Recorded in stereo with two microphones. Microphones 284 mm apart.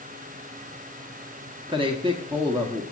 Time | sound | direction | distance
1.7 | a man speaking | 20° right (ahead or behind) | 0.9 m